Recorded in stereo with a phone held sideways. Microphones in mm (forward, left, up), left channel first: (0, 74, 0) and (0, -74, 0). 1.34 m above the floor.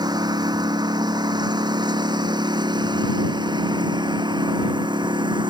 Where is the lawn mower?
25° right (ahead or behind); by 5.5 s 30° right (ahead or behind).